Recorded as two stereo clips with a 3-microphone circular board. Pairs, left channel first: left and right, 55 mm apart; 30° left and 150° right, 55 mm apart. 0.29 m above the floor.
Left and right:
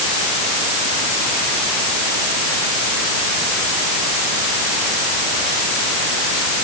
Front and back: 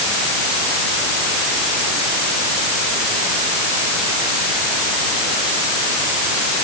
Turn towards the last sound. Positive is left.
No sound to turn to.